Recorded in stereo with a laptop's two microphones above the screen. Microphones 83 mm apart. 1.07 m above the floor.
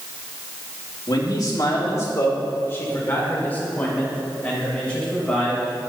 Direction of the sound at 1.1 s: 50° left (ahead or behind).